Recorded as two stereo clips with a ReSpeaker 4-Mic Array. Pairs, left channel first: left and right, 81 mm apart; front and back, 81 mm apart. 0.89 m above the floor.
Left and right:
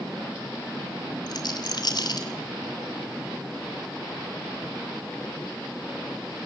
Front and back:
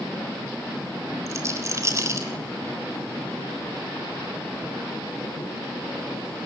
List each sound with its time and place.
1.3 s a rattle: 125° left, 3.5 m